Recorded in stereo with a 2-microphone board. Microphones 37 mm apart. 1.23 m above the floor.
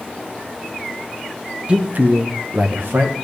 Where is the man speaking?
30° right (ahead or behind), 0.6 m; by 3.1 s 70° right (ahead or behind), 1.4 m.